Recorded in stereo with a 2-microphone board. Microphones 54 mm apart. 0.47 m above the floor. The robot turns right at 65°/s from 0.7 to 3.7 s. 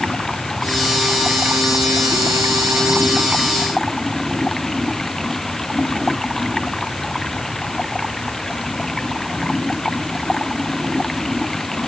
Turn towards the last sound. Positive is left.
turn(degrees=5)